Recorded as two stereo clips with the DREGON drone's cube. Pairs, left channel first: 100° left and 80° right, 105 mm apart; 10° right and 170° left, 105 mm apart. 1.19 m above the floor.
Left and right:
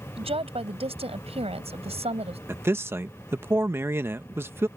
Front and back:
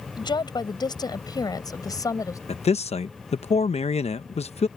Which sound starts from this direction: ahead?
A man speaking, at 2.5 s.